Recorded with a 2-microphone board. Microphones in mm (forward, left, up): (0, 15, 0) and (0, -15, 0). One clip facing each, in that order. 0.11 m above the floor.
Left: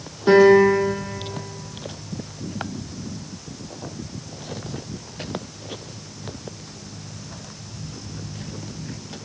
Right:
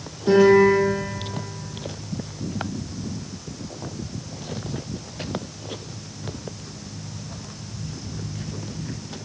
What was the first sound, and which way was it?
A piano, 40° left (ahead or behind).